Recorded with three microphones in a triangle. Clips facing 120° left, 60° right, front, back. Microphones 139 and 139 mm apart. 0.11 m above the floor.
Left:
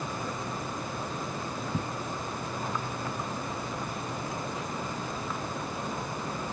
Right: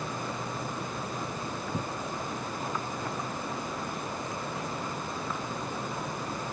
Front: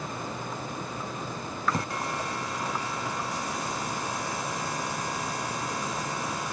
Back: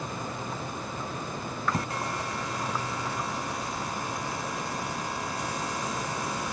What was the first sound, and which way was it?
Only background noise.